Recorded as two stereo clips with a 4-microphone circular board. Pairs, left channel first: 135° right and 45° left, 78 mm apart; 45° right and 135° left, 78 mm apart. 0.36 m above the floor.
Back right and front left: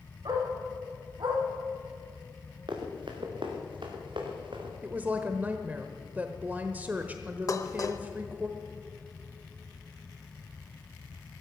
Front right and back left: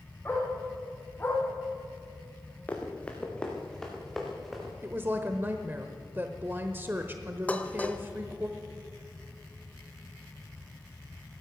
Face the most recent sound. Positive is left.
turn(degrees=-110)